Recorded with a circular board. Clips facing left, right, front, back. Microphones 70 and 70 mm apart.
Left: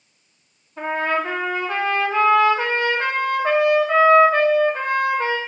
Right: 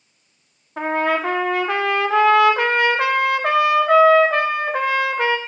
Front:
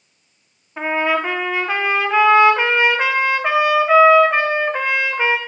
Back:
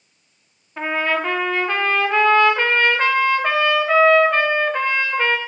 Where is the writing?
I don't hear writing.